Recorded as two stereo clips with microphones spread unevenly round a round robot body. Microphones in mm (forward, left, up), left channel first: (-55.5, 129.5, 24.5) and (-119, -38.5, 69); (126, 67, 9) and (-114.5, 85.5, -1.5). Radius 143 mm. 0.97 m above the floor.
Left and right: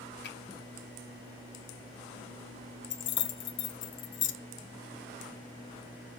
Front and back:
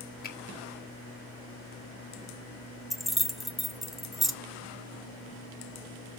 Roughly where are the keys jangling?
Left.